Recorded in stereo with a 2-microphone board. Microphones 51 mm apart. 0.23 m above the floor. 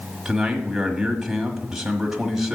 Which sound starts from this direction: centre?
A man speaking, at 0.2 s.